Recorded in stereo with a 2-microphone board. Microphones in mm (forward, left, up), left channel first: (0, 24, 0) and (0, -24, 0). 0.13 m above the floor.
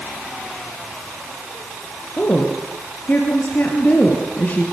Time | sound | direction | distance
2.2 | a woman speaking | 35° left (ahead or behind) | 3 m